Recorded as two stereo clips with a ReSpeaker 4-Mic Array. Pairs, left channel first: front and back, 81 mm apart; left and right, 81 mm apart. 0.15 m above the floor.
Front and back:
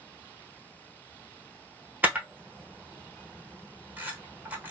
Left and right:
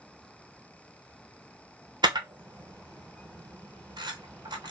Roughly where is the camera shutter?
Behind right.